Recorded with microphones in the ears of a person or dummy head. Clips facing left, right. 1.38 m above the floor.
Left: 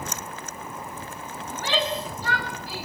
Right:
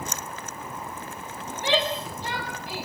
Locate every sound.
1.5 s a shout: 20° right (ahead or behind), 6 m